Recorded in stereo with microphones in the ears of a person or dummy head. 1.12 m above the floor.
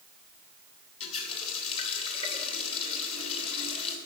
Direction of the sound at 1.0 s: 35° left (ahead or behind).